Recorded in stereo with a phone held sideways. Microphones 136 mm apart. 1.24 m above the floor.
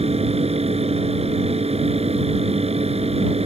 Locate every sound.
0.0 s a fan: 50° right (ahead or behind)